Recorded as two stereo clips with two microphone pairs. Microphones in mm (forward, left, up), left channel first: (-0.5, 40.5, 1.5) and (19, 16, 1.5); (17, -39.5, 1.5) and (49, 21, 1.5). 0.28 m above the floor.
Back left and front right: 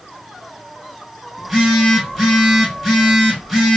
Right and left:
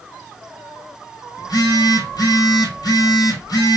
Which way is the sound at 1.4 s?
140° right.